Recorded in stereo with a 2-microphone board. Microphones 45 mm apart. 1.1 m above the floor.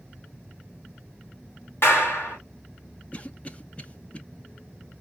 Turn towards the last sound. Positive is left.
turn(degrees=30)  # may be behind; listen again after turning